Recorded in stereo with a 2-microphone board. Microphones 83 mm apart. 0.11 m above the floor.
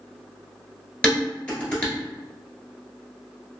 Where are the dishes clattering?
15° left (ahead or behind), 1.2 m.